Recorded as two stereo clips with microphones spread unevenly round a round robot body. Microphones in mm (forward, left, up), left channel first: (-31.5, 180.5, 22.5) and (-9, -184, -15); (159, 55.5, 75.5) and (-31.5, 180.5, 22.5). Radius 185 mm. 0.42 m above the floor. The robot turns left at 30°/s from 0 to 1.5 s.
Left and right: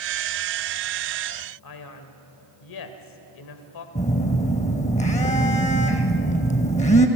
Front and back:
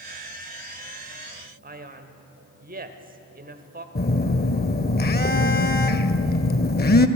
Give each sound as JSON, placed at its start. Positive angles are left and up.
{"t": 1.6, "sound": "a man speaking", "azimuth_deg": 120, "distance_m": 2.5}
{"t": 4.0, "sound": "a phone buzzing", "azimuth_deg": 20, "distance_m": 1.6}